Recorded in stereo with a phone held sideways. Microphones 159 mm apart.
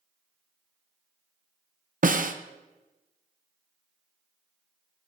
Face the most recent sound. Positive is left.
turn(degrees=-65)  # may be behind; listen again after turning